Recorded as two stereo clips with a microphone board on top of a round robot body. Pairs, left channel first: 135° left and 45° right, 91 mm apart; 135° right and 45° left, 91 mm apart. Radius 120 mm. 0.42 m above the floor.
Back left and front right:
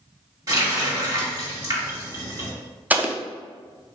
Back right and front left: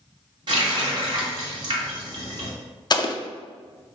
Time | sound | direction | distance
0.5 | a running tap | 10° left | 1.6 m
2.9 | an explosion | 110° right | 0.5 m